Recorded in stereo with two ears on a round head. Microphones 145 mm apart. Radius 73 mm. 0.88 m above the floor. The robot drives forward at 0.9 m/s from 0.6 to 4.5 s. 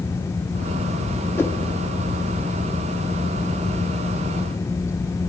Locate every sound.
1.4 s a whoosh: 15° left (ahead or behind), 0.7 m; by 1.6 s 20° left (ahead or behind), 0.5 m